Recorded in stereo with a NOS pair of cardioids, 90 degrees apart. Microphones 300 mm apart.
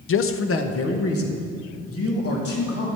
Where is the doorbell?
I don't hear a doorbell.